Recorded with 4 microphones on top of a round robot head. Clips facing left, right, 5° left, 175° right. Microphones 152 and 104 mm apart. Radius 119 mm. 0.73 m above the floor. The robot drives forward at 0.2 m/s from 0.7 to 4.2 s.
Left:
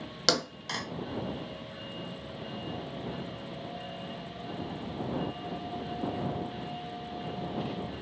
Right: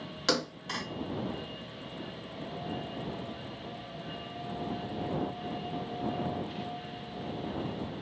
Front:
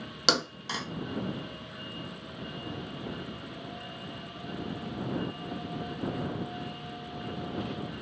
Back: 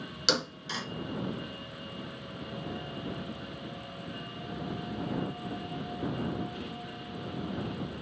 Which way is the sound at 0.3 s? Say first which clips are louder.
Even, front 2 dB; 40° left.